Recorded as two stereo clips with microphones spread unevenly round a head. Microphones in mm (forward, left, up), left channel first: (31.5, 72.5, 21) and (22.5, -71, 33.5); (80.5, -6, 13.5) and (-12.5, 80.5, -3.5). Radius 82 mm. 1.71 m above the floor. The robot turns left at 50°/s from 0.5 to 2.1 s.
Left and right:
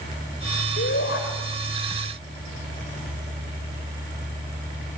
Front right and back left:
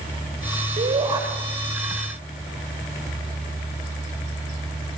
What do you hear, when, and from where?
0.8 s a shout: 100° left, 9.5 m; by 1.2 s 75° left, 9.5 m